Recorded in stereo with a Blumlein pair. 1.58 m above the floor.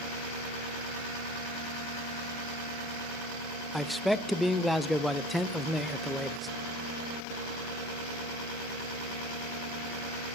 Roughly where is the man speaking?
Ahead.